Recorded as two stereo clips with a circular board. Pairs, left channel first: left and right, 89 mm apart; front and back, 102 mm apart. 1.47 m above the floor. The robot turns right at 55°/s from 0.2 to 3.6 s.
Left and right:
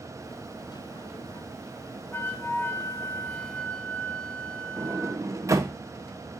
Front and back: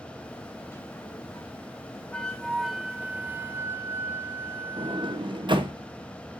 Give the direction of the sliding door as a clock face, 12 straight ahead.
5 o'clock.